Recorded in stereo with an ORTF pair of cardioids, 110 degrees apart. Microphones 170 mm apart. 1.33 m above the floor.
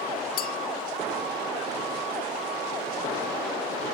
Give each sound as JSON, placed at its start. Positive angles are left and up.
{"t": 0.4, "sound": "a clink", "azimuth_deg": 55}